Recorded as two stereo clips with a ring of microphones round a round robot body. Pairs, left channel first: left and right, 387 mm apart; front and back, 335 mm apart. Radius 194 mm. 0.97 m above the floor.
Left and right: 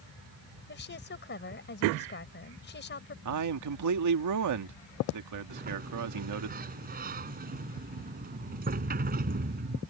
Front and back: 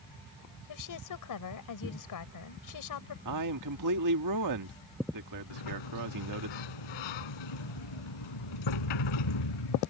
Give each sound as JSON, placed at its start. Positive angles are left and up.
{"t": 0.7, "sound": "a woman speaking", "azimuth_deg": 25}
{"t": 3.2, "sound": "a man speaking", "azimuth_deg": -135}
{"t": 5.5, "sound": "a sliding door", "azimuth_deg": -20}